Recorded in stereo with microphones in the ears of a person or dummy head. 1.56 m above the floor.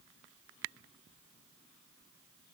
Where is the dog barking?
No dog barking in this recording.